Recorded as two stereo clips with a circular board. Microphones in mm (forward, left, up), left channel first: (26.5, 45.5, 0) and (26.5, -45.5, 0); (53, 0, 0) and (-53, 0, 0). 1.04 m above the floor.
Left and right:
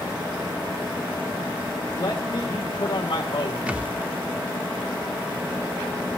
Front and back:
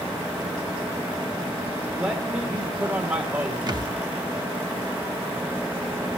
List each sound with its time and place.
2.0 s a man speaking: 115° left, 1.6 m
3.7 s a thud: 160° right, 0.7 m